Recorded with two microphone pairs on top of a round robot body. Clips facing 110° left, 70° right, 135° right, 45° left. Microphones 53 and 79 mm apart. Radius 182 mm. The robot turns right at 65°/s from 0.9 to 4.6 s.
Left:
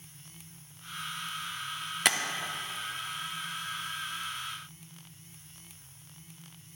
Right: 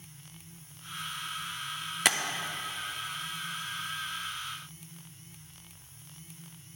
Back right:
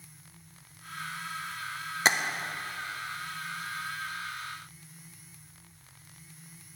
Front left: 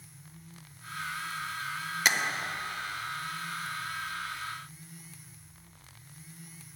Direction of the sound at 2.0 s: 150° right.